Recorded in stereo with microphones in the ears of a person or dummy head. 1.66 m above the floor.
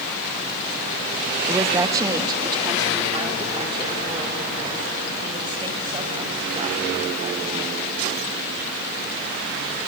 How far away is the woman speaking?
About 1.8 m.